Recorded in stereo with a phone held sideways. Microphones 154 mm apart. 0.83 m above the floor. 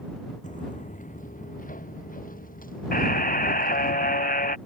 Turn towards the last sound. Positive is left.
turn(degrees=70)  # may be behind; listen again after turning